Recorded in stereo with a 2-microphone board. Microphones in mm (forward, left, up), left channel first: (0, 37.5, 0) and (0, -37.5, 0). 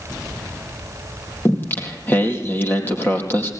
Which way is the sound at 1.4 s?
25° left (ahead or behind).